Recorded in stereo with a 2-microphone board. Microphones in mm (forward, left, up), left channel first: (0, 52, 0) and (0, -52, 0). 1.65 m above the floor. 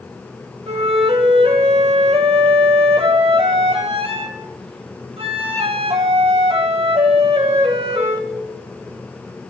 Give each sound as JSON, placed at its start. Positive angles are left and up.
{"t": 0.7, "sound": "a flute", "side_deg": -70, "distance_m": 2.5}